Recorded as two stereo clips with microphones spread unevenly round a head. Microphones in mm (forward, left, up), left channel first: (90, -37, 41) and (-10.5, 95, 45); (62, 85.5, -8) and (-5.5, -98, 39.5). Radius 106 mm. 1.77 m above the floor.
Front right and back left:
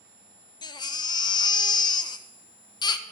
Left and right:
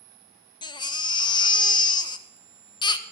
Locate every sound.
0.6 s a baby crying: 5° right, 0.6 m